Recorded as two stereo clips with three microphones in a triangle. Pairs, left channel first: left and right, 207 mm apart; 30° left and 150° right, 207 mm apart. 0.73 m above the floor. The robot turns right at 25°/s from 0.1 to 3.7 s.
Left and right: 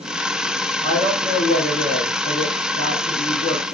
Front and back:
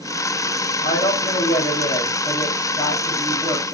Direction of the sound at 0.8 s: 50° left.